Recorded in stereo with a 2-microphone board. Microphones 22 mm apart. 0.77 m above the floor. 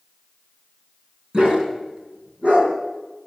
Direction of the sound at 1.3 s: 55° right (ahead or behind).